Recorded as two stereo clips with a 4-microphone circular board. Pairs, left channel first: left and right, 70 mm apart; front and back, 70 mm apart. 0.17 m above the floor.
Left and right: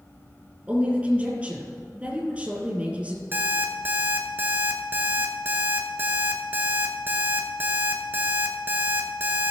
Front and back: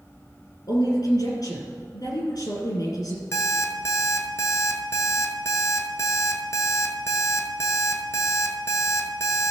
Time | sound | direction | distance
0.7 | a woman speaking | 15° right | 3.5 m
3.3 | an alarm clock | 35° right | 1.3 m